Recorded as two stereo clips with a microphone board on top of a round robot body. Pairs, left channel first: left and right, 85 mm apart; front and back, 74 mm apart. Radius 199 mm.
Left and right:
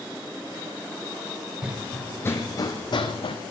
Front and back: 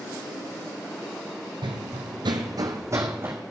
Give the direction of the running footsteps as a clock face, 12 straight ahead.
6 o'clock.